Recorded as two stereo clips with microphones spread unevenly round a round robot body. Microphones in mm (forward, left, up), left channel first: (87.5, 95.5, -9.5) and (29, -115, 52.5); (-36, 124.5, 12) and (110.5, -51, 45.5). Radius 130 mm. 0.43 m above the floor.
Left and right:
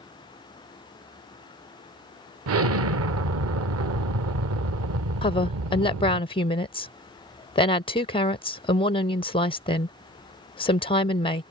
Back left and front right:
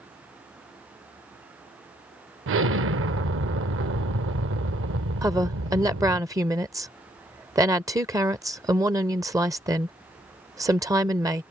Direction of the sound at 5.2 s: 30° left.